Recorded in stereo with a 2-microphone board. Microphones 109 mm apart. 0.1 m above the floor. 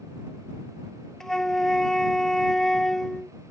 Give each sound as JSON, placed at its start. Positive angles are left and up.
{"t": 1.2, "sound": "a flute", "side_deg": 5}